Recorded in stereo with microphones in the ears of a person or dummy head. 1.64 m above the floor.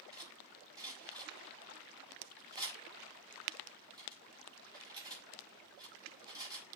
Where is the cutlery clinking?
20° right (ahead or behind), 5 m.